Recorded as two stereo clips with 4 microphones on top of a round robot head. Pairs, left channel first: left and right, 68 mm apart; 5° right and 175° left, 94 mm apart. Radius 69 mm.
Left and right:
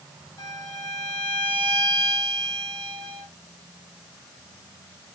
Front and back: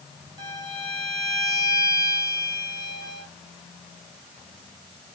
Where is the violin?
130° left, 2.5 m.